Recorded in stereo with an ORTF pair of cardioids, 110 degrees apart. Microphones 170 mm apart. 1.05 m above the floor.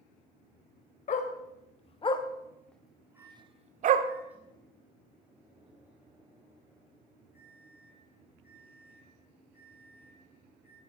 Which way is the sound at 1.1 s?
50° left.